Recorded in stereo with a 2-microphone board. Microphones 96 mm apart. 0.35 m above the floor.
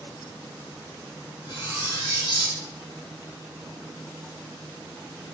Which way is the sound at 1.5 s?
65° left (ahead or behind).